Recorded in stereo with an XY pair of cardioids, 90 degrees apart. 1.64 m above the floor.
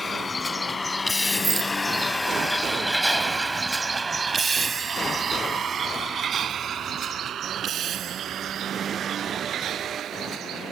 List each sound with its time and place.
0.0 s a vehicle: 40° left; by 10.7 s 75° right
1.4 s a rattle: 40° right